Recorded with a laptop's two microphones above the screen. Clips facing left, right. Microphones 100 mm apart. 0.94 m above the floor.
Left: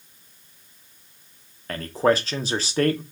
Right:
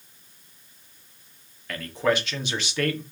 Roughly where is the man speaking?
Left.